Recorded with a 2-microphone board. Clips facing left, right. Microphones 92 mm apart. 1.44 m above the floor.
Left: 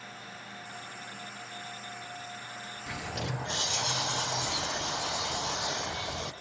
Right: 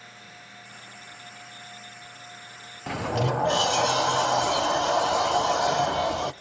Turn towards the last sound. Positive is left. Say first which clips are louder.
# right 11 dB
turn(degrees=-65)  # may be behind; listen again after turning